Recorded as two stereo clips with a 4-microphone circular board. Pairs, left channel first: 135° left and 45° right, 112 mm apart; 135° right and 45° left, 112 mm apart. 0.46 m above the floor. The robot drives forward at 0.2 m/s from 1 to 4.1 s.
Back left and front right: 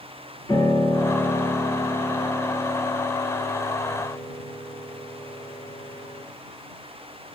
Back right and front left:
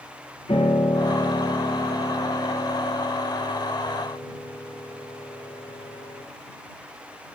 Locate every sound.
0.5 s a piano: 170° right, 2.5 m; by 6.2 s 175° right, 3 m